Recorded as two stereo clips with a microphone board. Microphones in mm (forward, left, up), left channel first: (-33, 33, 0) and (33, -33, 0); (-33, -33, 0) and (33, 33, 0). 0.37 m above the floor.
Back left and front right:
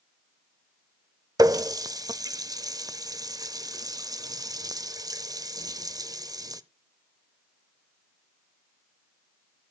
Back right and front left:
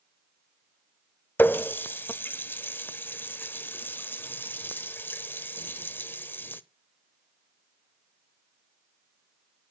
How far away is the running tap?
About 0.7 m.